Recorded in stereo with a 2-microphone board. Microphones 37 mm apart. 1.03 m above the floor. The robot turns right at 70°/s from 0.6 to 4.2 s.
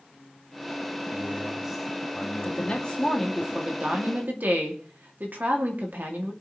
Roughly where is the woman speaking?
Behind left.